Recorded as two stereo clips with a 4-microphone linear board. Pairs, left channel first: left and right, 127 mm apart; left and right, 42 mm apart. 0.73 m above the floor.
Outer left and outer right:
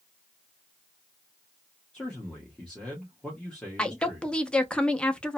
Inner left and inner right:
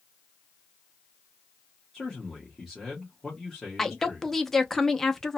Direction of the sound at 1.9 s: 5° left (ahead or behind).